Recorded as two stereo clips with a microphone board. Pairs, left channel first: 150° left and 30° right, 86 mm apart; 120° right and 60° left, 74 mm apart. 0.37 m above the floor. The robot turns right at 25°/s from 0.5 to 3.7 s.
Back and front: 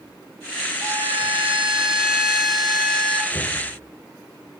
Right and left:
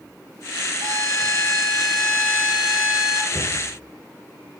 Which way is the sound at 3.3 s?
75° left.